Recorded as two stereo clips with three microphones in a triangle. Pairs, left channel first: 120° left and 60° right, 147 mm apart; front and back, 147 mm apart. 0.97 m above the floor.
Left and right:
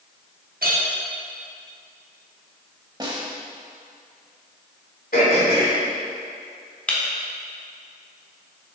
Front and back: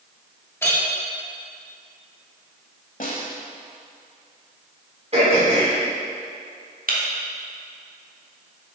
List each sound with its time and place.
0.6 s a clink: 75° right, 1.5 m
3.0 s a snare drum: 5° right, 1.2 m
5.1 s throat clearing: 135° left, 2 m
6.9 s breaking glass: 160° right, 1.3 m